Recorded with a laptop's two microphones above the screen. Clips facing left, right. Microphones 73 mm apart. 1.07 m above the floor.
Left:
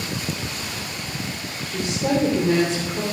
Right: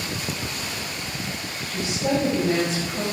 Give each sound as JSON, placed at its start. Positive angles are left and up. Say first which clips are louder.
{"t": 1.6, "sound": "a woman speaking", "louder": "left 2 dB", "side_deg": 70, "distance_m": 3.5}